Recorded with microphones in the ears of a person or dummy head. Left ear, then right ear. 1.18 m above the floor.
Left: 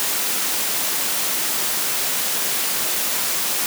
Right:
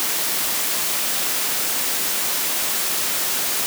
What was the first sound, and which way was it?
Only background noise.